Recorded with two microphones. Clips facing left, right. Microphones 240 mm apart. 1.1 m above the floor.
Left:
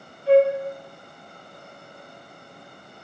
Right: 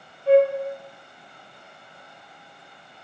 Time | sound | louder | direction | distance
0.3 | a flute | even | 50° right (ahead or behind) | 0.8 m